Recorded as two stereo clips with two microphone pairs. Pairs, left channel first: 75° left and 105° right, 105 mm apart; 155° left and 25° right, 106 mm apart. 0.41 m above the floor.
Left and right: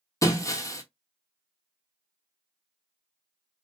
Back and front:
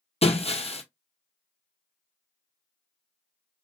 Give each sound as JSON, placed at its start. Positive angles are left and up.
{"t": 0.2, "sound": "breaking glass", "azimuth_deg": 135, "distance_m": 1.2}